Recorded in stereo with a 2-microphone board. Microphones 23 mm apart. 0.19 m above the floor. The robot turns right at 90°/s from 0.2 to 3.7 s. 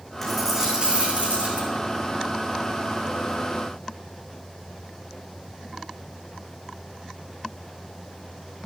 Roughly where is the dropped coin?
Behind.